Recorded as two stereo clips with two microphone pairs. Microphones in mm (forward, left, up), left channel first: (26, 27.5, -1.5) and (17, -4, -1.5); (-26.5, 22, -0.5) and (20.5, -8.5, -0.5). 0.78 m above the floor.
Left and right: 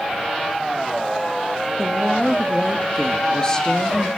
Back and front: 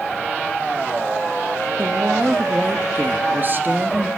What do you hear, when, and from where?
1.8 s a woman speaking: 15° left, 1.2 m